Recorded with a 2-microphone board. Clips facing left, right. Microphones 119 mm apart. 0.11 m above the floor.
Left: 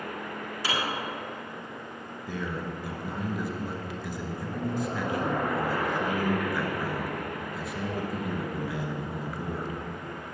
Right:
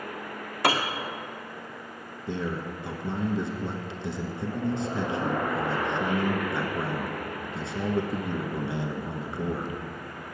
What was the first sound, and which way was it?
A piano, 60° right (ahead or behind).